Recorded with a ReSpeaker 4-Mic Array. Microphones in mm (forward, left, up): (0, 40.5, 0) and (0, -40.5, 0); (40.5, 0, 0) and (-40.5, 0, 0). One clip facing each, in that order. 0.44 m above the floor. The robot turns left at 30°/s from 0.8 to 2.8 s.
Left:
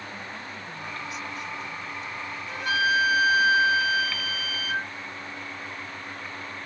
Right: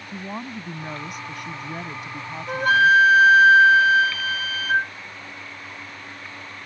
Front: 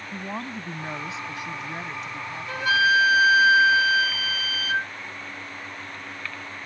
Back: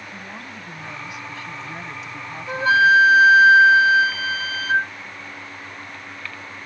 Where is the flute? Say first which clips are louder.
Right 9 dB, back 6 dB; 120° right; by 4.9 s 130° right.